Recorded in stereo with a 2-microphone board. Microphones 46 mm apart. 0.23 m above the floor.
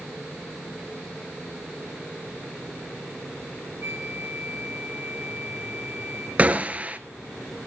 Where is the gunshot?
30° right (ahead or behind), 1.0 m.